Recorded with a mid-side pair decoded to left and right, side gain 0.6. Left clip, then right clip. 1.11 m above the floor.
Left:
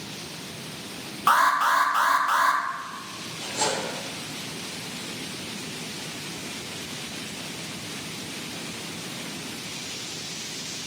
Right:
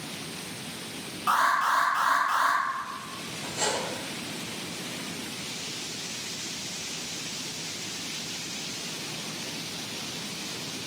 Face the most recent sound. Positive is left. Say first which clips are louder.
# left 3 dB
turn(degrees=60)